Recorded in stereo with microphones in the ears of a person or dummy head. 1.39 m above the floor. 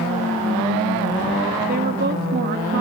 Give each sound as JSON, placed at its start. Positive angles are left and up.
{"t": 1.7, "sound": "a woman speaking", "side_deg": -45, "distance_m": 2.0}